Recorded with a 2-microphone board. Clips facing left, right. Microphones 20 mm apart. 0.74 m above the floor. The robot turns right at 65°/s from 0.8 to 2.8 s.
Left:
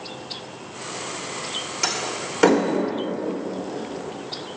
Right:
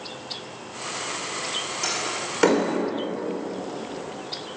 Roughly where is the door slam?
Left.